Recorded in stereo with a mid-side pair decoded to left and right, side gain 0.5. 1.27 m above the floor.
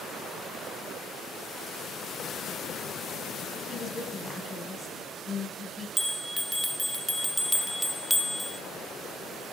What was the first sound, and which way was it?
A woman speaking, 25° left.